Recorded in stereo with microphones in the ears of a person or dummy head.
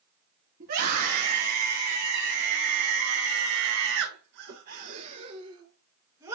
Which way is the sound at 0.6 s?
50° right (ahead or behind).